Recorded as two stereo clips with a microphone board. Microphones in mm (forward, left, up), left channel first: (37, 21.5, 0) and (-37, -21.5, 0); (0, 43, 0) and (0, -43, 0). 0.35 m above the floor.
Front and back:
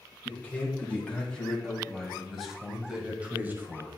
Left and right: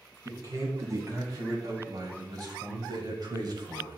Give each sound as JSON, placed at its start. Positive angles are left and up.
{"t": 0.2, "sound": "a man speaking", "azimuth_deg": -40, "distance_m": 3.0}